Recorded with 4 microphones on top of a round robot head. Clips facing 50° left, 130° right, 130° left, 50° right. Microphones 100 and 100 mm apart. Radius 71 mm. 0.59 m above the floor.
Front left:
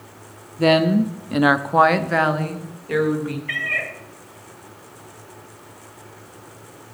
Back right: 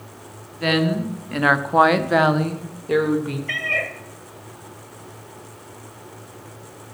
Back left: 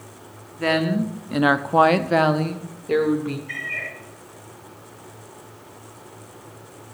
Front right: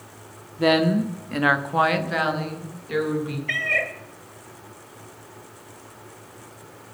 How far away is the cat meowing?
About 1.3 m.